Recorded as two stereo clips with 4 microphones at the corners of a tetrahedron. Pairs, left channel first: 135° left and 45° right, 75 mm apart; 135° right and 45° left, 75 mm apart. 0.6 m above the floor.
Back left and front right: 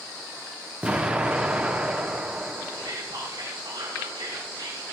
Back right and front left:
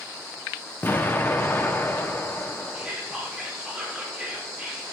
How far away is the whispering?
About 7 m.